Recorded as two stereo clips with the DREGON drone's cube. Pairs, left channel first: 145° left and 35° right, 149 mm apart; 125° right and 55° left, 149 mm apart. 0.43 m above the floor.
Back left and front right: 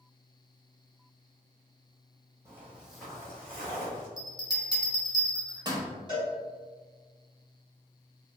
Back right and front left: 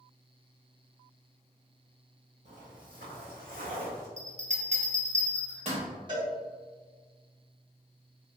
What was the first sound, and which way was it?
Footsteps, 35° left.